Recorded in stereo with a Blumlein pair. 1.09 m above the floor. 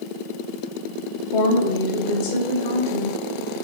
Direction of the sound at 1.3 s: 45° left.